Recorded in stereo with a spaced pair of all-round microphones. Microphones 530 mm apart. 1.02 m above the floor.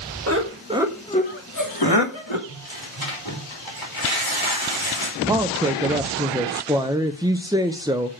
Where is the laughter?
30° right (ahead or behind), 1.6 m; by 2.4 s 60° left (ahead or behind), 1.9 m.